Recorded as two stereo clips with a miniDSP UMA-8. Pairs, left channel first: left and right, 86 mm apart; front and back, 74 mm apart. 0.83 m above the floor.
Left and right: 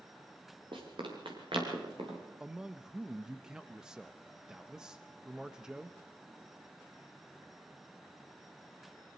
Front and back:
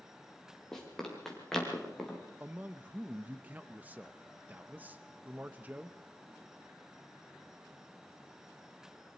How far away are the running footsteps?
About 5 m.